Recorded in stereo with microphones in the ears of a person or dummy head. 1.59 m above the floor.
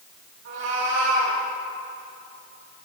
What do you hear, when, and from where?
0.5 s a cat meowing: 70° right (ahead or behind), 3.5 m